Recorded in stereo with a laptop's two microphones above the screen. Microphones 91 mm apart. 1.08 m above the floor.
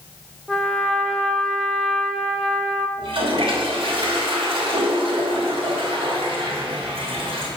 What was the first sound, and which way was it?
A trumpet, 5° left (ahead or behind).